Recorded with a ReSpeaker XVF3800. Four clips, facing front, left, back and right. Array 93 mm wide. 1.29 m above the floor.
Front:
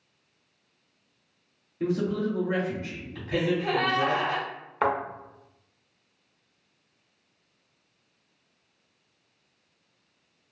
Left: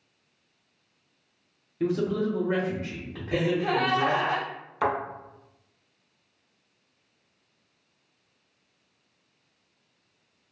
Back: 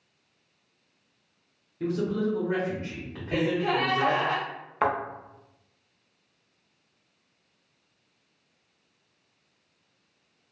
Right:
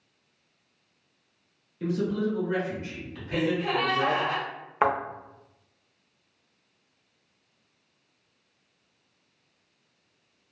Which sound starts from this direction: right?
A thud, at 4.8 s.